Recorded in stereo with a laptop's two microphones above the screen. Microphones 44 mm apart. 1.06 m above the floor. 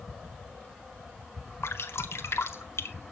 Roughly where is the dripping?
Left.